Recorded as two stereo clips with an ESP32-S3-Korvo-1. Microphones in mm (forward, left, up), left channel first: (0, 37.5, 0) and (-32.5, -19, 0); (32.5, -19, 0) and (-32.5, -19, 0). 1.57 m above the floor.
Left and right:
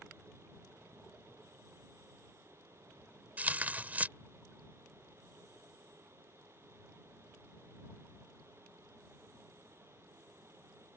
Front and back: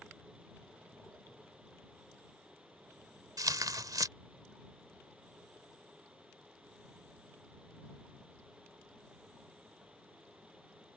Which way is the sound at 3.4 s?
175° left.